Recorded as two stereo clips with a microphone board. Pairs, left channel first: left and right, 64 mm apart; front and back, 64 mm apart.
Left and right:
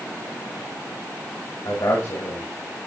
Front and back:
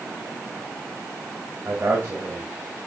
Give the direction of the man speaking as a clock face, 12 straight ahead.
8 o'clock.